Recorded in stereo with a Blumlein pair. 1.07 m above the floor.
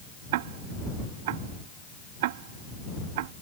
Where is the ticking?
50° right.